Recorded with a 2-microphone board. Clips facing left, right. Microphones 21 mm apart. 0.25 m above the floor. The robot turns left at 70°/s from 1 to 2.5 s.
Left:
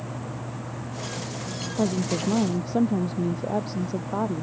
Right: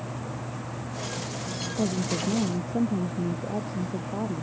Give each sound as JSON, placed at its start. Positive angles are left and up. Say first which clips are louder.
{"t": 1.8, "sound": "a woman speaking", "louder": "left 3 dB", "azimuth_deg": 140}